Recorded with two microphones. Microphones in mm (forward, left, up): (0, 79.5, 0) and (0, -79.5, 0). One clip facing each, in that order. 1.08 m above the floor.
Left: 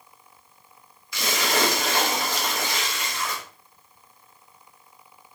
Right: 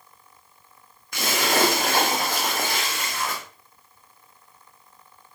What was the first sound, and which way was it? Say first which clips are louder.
A splash: right 2 dB; 50° right (ahead or behind).